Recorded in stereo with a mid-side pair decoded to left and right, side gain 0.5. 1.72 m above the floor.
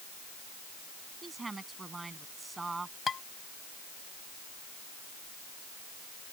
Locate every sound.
1.2 s a woman speaking: 25° right
3.1 s dishes clattering: 35° left